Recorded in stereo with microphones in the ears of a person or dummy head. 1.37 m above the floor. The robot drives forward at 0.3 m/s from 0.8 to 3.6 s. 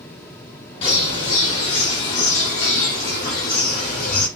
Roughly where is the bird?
Left.